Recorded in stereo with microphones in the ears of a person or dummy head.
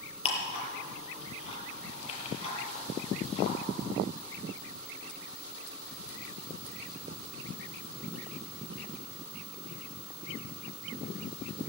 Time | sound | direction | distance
0.2 | ticking | 30° left (ahead or behind) | 7.5 m